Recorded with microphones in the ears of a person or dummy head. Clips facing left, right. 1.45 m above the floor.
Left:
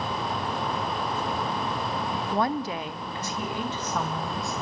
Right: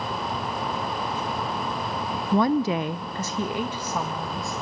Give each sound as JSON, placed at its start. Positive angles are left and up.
{"t": 2.3, "sound": "a woman speaking", "side_deg": -75, "distance_m": 0.8}